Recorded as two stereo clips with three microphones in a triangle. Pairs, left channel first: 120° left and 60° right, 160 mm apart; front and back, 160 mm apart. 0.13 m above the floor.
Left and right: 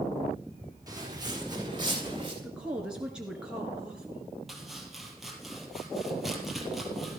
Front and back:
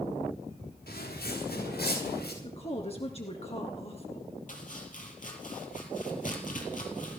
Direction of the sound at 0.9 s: 10° left.